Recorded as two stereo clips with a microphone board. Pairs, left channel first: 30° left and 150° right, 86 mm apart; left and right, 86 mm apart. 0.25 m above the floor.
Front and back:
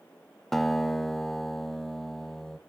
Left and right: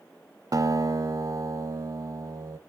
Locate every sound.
0.5 s a guitar: 55° right, 0.5 m